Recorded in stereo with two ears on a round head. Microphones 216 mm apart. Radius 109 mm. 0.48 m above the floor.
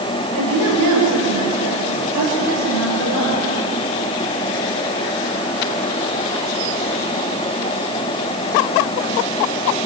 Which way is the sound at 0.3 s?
85° right.